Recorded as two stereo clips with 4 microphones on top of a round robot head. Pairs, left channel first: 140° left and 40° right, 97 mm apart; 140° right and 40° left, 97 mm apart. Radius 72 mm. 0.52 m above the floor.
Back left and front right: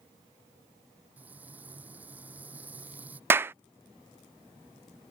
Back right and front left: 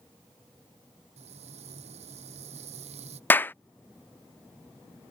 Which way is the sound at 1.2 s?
35° left.